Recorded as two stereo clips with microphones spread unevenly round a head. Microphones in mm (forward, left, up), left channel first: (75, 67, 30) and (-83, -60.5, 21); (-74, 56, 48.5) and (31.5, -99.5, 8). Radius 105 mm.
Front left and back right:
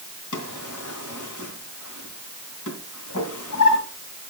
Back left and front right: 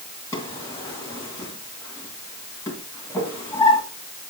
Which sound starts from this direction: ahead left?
A drawer, at 0.3 s.